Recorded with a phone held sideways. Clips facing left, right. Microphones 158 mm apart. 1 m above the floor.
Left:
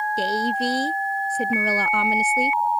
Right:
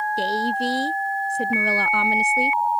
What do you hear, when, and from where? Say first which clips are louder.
0.2 s a woman speaking: left 1 dB; centre (ahead or behind)